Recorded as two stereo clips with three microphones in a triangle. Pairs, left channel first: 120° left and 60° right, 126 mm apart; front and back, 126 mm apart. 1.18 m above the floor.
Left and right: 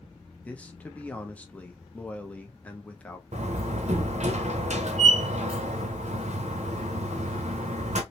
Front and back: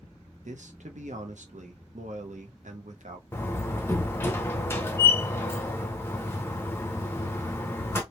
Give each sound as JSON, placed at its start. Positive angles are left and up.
{"t": 0.5, "sound": "a man speaking", "azimuth_deg": -160, "distance_m": 0.5}
{"t": 3.3, "sound": "a door slam", "azimuth_deg": -70, "distance_m": 0.6}